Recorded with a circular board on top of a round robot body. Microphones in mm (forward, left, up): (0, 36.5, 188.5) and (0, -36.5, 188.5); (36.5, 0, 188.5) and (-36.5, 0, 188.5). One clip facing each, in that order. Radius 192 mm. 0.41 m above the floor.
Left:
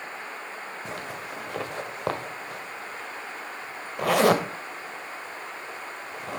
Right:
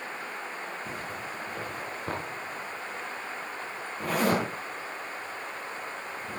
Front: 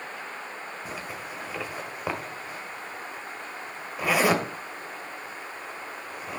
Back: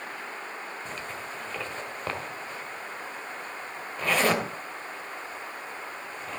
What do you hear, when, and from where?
0.8 s a zipper: 80° left, 2 m